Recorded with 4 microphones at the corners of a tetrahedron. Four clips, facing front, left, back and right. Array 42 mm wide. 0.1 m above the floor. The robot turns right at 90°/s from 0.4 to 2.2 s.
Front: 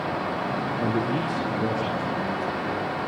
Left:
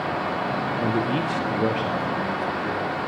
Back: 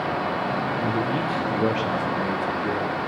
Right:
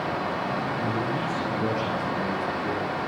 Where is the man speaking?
55° left, 6.5 m; by 3.0 s 175° right, 6.5 m.